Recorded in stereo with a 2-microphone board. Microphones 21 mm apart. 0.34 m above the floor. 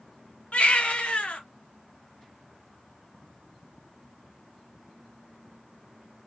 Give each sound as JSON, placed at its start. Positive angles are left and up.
{"t": 0.5, "sound": "a baby crying", "side_deg": 70, "distance_m": 1.8}